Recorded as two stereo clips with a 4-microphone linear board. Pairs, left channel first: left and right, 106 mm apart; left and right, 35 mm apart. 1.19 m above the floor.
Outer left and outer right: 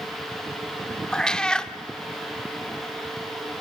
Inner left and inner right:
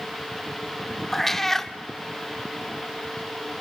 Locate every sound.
1.1 s a cat meowing: 10° left (ahead or behind), 0.8 m